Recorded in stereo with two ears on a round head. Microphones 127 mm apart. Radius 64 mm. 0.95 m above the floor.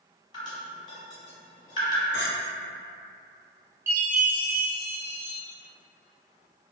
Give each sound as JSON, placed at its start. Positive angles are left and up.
{"t": 0.3, "sound": "dripping", "side_deg": 30, "distance_m": 1.0}
{"t": 2.1, "sound": "a clink", "side_deg": -70, "distance_m": 1.6}
{"t": 3.9, "sound": "a chime", "side_deg": -15, "distance_m": 0.6}